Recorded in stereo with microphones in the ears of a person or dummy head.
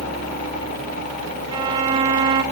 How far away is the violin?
About 2.5 m.